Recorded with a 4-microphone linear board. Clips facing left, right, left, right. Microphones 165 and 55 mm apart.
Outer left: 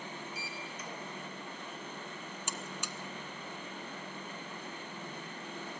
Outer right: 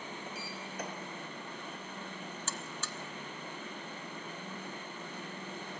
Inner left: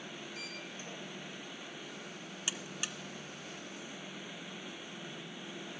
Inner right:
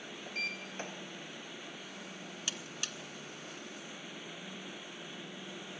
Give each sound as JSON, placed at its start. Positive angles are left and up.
{"t": 0.3, "sound": "a sliding door", "side_deg": -65, "distance_m": 3.5}
{"t": 2.5, "sound": "a buzzer", "side_deg": 15, "distance_m": 1.1}